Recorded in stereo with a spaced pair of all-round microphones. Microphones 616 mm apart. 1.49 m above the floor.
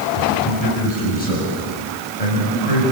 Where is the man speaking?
85° left, 7.5 m.